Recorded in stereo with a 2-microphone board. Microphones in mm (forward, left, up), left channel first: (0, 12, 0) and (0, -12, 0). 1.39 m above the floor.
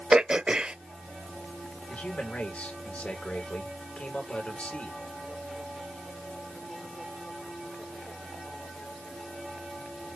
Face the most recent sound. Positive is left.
turn(degrees=70)  # may be behind; listen again after turning